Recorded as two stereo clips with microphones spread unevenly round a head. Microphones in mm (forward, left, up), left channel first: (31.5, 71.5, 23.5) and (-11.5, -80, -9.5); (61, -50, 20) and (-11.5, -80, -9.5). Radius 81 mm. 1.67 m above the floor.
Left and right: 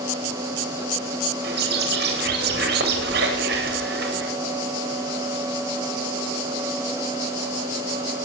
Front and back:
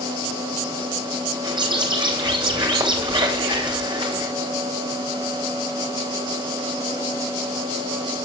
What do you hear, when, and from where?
1.4 s a bird: 135° right, 9 m